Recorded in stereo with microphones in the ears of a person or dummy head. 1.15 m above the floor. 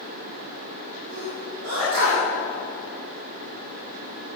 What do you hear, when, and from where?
1.1 s a sneeze: 85° right, 4 m